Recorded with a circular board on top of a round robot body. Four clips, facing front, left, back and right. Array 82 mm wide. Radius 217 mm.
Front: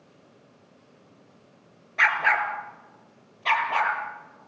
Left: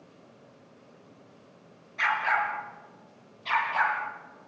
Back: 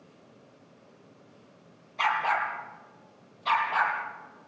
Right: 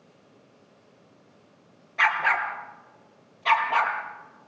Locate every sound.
2.0 s a dog barking: 25° right, 3.5 m; by 4.5 s 50° right, 6 m